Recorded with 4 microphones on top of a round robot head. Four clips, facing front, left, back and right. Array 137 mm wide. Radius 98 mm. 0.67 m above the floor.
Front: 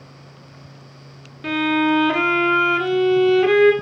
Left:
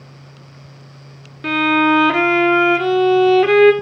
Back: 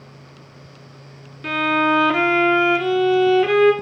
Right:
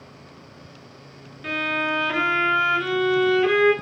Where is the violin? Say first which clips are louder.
Left 11 dB, even; 85° left, 1.9 m.